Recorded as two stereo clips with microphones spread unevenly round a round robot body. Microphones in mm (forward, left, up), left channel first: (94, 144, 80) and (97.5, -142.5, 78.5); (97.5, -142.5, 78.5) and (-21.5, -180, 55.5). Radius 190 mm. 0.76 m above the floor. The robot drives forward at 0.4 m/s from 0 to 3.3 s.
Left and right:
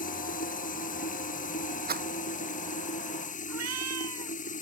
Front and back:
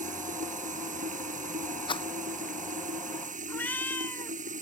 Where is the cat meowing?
60° right.